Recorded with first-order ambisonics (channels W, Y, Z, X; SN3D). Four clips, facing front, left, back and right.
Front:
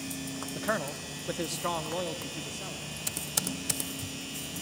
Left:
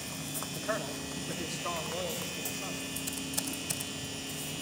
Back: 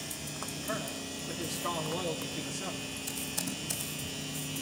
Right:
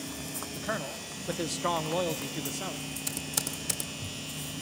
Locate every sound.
0.6 s a man speaking: 10° right, 1.4 m; by 2.8 s 100° right, 1.8 m
3.1 s typing on a keyboard: 40° right, 2 m